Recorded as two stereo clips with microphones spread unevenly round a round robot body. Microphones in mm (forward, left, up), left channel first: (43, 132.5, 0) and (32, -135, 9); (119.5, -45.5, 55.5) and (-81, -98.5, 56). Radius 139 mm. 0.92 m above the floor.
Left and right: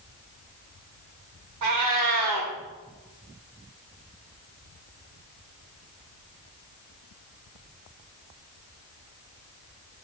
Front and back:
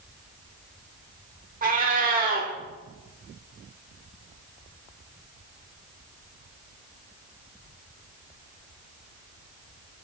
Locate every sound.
1.6 s a cat meowing: 115° right, 1.1 m